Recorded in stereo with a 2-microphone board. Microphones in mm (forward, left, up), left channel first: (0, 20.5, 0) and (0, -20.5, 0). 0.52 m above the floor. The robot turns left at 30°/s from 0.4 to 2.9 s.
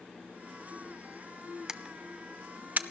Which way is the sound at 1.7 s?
15° right (ahead or behind).